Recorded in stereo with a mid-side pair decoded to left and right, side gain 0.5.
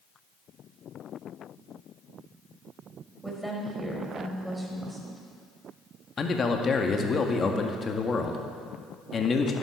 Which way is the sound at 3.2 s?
5° right.